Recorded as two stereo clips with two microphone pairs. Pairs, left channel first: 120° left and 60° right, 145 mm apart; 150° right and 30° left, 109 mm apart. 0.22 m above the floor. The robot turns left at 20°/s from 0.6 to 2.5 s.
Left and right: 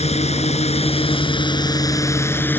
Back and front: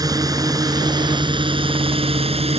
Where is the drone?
80° left; by 2.6 s 45° left.